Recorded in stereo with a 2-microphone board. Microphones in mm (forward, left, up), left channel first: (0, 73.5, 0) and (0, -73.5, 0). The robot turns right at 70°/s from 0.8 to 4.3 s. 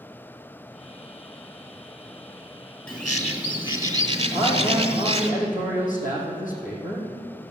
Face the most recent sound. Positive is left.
turn(degrees=65)  # may be behind; listen again after turning